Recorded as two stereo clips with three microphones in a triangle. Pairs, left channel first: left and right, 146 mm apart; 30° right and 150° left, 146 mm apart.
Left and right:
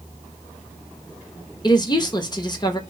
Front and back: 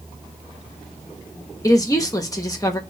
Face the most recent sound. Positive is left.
turn(degrees=30)